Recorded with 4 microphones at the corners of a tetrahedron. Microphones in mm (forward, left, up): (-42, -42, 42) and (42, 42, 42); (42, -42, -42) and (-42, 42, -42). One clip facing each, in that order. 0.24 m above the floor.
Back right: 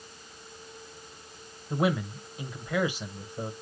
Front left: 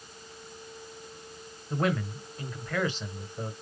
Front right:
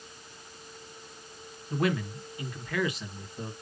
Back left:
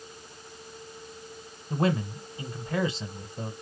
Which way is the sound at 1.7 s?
155° left.